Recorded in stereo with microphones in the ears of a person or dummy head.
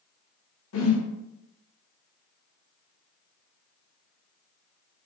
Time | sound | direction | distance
0.7 | a whoosh | 70° left (ahead or behind) | 0.8 m